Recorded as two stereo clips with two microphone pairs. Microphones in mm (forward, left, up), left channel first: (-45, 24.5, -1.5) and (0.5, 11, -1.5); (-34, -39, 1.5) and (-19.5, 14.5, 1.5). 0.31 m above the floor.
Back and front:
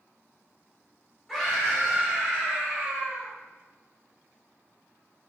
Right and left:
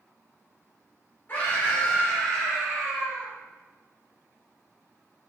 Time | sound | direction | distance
1.3 | a scream | 110° right | 1.7 m